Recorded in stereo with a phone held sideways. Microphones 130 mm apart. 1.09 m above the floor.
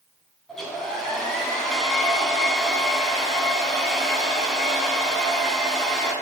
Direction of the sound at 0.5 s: 5° left (ahead or behind).